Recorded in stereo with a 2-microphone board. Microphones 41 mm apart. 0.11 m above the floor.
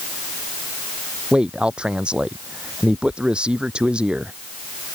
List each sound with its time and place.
1.3 s a man speaking: 25° right (ahead or behind)